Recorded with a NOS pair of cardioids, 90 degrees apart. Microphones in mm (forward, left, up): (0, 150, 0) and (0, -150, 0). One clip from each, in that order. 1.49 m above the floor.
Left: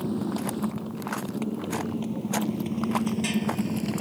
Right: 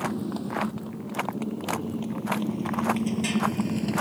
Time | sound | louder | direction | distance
0.0 | a motorcycle | left 1 dB | 10° left | ?